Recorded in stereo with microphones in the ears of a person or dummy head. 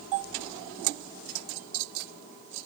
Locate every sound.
Only background noise.